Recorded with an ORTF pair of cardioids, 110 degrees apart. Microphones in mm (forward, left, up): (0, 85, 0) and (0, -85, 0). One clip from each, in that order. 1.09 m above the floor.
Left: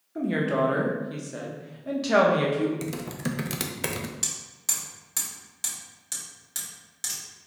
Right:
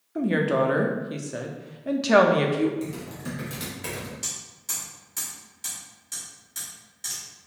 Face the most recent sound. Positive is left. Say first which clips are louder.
# left 3 dB
turn(degrees=50)